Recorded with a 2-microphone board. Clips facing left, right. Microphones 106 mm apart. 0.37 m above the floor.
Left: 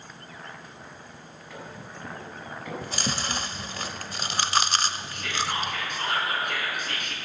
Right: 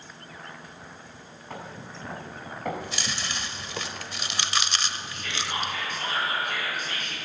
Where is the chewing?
40° left (ahead or behind), 0.5 m.